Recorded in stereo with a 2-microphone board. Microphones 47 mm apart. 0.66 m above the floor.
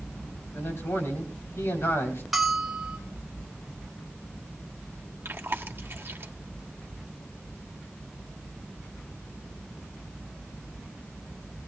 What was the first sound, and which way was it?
A man speaking, 65° left (ahead or behind).